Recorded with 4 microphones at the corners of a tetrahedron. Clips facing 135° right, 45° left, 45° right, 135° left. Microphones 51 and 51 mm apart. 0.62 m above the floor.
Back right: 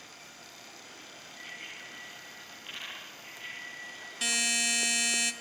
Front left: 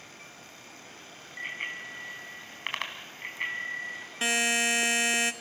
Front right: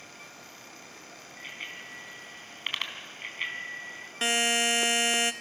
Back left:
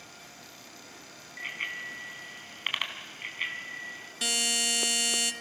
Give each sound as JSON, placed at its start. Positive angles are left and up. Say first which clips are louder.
{"t": 1.4, "sound": "a bicycle bell", "louder": "front left 9 dB, back left 6 dB", "azimuth_deg": 80, "distance_m": 3.5}
{"t": 4.2, "sound": "a buzzer", "louder": "front left 5 dB, front right 5 dB", "azimuth_deg": -5, "distance_m": 1.0}